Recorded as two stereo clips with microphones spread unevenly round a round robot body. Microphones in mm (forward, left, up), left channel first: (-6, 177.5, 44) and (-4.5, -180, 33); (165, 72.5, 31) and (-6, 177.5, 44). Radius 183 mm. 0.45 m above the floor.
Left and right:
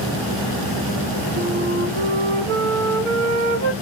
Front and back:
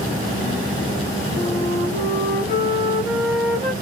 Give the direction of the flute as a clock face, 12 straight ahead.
2 o'clock.